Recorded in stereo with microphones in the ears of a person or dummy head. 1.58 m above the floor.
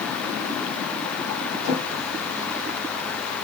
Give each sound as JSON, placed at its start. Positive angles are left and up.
{"t": 1.6, "sound": "a drawer", "side_deg": 50, "distance_m": 2.5}